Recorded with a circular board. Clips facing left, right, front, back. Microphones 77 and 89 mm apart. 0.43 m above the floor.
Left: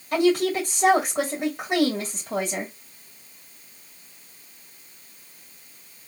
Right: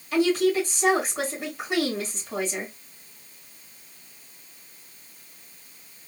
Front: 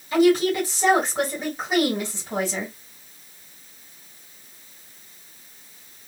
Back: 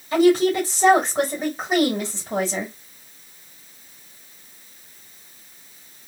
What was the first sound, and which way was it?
A woman speaking, 125° left.